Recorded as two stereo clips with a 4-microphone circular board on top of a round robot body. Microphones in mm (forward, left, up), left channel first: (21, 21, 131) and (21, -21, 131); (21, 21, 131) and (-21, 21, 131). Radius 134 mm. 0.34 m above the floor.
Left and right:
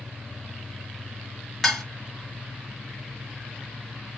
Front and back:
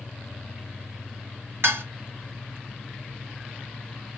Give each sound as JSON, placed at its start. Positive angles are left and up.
{"t": 1.6, "sound": "dishes clattering", "azimuth_deg": 175, "distance_m": 1.4}